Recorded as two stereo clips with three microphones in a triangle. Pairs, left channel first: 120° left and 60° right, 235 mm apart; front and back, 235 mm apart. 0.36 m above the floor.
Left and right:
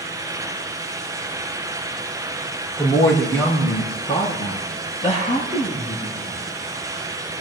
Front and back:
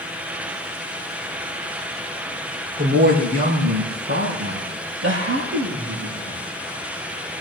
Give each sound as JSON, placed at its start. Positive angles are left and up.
{"t": 2.8, "sound": "a woman speaking", "azimuth_deg": -155, "distance_m": 6.5}